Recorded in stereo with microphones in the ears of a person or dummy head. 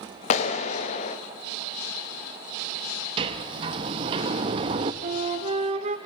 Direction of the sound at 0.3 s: 40° left (ahead or behind).